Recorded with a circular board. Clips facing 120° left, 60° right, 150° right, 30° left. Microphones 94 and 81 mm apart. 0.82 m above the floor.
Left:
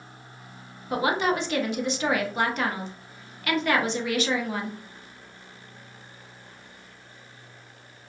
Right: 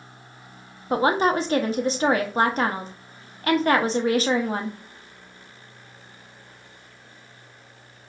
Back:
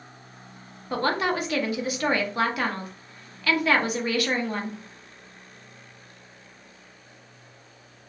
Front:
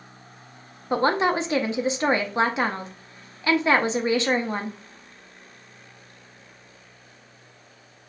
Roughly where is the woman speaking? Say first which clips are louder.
Right 4 dB, front 4 dB; ahead right.